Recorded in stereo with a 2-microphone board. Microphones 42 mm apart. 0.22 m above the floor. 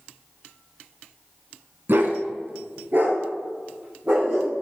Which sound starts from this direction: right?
A dog barking, at 1.9 s.